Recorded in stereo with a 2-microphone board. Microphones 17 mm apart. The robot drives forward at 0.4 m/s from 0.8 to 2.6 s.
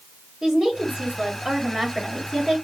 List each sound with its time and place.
0.4 s a woman speaking: 40° right (ahead or behind), 1.7 m